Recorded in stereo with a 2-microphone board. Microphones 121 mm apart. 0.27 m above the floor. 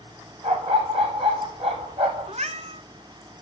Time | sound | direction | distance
0.4 | a dog barking | 60° right (ahead or behind) | 4.5 m
2.3 | a cat meowing | 75° right (ahead or behind) | 0.9 m